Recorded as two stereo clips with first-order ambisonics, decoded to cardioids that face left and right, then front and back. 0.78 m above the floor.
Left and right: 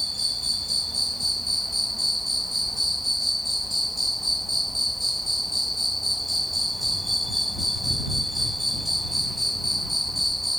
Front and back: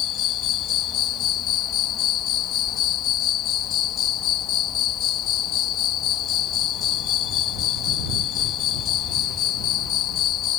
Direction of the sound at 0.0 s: 5° left.